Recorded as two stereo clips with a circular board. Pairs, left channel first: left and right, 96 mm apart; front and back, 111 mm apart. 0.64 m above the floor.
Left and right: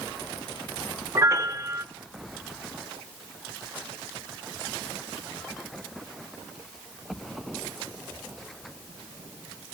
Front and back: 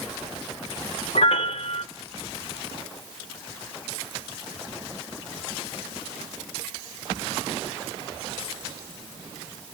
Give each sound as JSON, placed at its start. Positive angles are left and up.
{"t": 1.1, "sound": "a piano", "azimuth_deg": -30, "distance_m": 0.6}